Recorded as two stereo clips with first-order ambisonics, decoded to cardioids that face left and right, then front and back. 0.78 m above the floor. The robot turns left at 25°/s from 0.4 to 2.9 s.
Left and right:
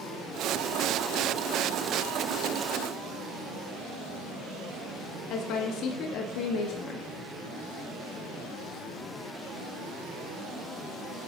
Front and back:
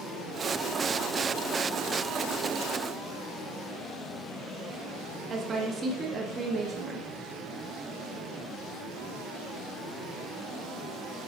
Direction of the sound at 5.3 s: 115° left.